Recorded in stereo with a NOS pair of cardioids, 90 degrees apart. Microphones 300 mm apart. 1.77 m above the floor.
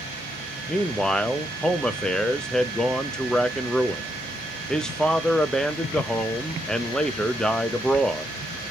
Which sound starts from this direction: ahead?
A man speaking, at 0.7 s.